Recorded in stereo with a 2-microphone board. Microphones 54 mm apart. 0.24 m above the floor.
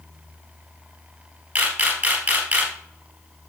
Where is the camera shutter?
35° right (ahead or behind), 3 m.